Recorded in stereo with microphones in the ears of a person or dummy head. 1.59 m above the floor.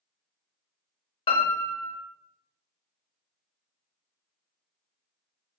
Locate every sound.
1.3 s a piano: 25° left (ahead or behind), 0.9 m